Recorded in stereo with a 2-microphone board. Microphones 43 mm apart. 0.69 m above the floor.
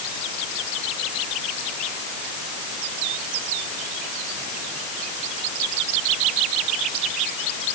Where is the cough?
I don't hear a cough.